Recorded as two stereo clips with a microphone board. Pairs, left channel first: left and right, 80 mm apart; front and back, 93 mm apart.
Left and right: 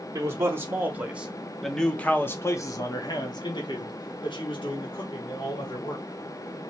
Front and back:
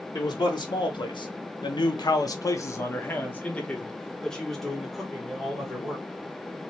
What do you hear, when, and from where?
0.1 s a man speaking: 40° right, 1.3 m; by 6.1 s 95° left, 2.5 m